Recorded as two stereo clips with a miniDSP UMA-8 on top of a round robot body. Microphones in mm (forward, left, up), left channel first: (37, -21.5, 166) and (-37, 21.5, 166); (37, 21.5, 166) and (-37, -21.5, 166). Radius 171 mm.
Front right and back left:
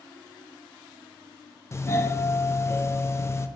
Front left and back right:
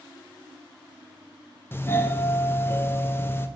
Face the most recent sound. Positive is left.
turn(degrees=-10)